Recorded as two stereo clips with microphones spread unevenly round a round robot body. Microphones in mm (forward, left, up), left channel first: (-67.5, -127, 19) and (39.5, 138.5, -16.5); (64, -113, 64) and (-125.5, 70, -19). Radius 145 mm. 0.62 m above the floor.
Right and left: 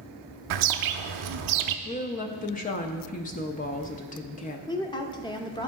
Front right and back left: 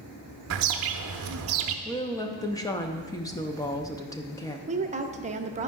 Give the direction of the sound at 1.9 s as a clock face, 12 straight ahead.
5 o'clock.